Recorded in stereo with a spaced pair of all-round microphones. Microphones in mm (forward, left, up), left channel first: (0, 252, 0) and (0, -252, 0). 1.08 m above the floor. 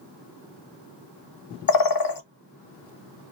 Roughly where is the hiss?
I don't hear a hiss.